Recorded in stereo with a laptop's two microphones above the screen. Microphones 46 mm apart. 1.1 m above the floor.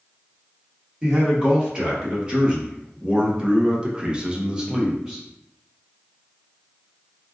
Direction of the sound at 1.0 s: 20° right (ahead or behind).